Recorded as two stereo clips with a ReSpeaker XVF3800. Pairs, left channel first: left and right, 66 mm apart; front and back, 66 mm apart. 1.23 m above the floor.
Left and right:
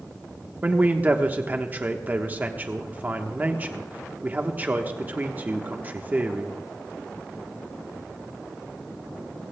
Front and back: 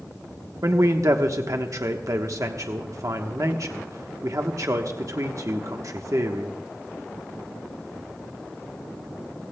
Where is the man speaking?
150° right, 1.1 m.